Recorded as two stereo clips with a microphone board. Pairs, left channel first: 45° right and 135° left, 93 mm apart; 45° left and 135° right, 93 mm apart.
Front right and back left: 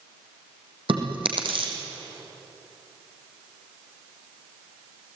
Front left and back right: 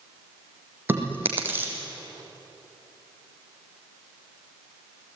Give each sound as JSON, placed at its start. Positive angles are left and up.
{"t": 0.9, "sound": "chewing", "azimuth_deg": 155, "distance_m": 4.5}